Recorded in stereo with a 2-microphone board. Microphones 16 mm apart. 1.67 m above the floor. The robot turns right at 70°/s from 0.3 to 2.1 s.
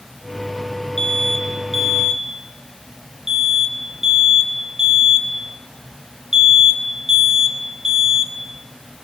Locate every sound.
1.0 s an alarm: 35° left (ahead or behind), 1.9 m; by 8.3 s 40° right (ahead or behind), 1.9 m